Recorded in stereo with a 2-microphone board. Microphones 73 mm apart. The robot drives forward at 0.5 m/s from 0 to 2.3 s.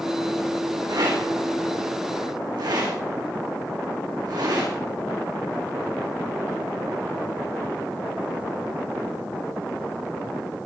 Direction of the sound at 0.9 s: 75° right (ahead or behind).